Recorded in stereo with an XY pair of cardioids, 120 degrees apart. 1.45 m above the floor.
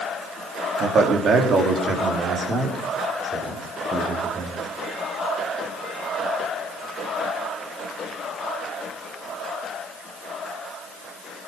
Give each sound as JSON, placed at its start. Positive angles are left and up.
{"t": 0.8, "sound": "a man speaking", "azimuth_deg": -50, "distance_m": 3.0}